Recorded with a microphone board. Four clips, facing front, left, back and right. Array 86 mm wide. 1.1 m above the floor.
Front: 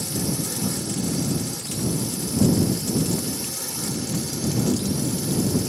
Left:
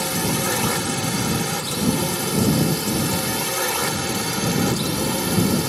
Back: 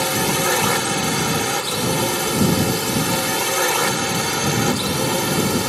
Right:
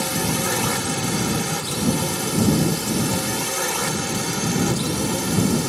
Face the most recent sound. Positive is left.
turn(degrees=175)